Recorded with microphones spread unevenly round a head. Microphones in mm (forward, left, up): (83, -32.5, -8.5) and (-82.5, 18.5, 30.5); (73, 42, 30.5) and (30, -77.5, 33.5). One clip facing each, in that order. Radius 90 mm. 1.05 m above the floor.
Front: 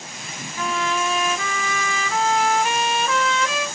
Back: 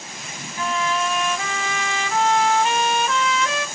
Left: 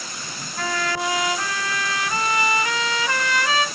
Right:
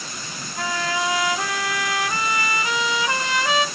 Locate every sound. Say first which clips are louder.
0.6 s a trumpet: back 1 dB, even; 35° right, 1.3 m